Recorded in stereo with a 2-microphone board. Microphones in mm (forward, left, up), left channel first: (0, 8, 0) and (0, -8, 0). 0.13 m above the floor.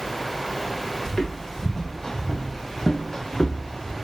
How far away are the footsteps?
About 2.5 m.